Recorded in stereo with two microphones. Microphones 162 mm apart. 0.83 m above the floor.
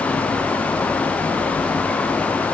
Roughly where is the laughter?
No laughter in this recording.